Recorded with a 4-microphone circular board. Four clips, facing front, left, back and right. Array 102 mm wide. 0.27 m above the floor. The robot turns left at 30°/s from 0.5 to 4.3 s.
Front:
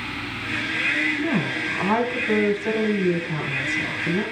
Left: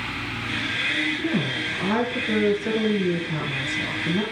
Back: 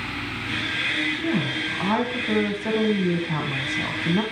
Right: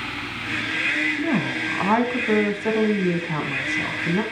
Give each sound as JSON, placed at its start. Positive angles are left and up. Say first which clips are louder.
{"t": 1.2, "sound": "a woman speaking", "louder": "right 2 dB, front 1 dB", "azimuth_deg": -60, "distance_m": 1.8}